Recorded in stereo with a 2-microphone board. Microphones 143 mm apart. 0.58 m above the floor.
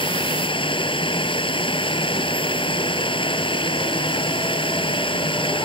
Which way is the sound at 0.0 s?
35° left (ahead or behind).